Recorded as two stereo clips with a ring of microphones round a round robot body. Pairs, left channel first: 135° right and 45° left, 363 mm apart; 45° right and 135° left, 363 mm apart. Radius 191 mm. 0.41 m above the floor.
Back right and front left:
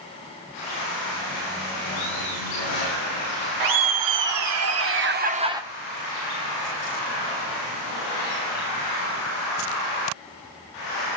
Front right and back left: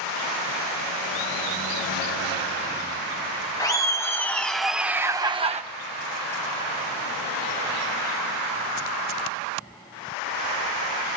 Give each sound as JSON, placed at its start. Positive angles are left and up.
{"t": 3.6, "sound": "laughter", "azimuth_deg": 35, "distance_m": 1.7}